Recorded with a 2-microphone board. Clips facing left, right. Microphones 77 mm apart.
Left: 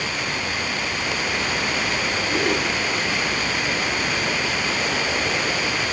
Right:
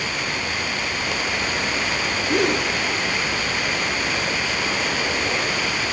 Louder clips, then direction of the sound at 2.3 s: Right 3 dB; 70° right (ahead or behind).